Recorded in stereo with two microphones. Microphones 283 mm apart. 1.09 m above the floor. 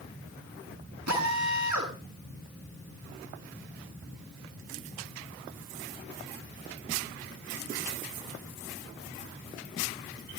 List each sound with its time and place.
1.1 s a drill: 85° right, 6.5 m